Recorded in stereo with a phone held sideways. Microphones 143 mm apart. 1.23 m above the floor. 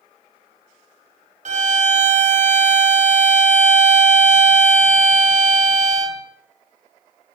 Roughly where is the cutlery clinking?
I don't hear cutlery clinking.